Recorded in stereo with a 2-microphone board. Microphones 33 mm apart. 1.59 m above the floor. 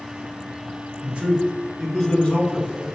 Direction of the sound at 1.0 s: 40° right (ahead or behind).